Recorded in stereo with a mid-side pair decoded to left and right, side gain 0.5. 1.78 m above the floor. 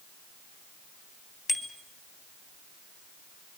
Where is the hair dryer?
I don't hear a hair dryer.